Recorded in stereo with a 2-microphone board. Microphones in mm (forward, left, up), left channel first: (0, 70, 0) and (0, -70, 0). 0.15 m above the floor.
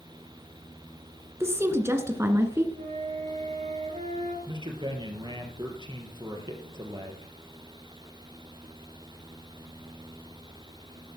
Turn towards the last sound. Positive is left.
turn(degrees=-35)  # may be behind; listen again after turning